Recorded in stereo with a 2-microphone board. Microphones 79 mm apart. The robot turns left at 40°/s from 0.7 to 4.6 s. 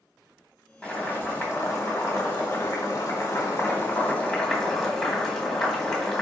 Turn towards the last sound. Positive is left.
turn(degrees=5)